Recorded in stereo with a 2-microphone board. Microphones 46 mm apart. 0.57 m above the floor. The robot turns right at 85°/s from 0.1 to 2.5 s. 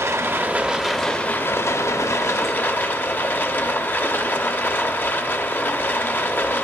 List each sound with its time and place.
0.0 s running water: 65° right, 0.7 m; by 6.6 s 140° left, 0.7 m